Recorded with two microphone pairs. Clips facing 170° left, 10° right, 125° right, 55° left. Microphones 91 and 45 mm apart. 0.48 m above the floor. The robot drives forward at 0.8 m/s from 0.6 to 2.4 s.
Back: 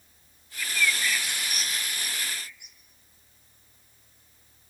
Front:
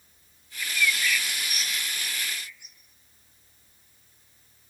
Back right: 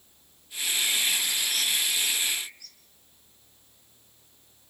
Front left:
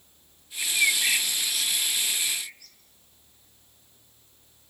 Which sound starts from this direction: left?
A bird, at 0.6 s.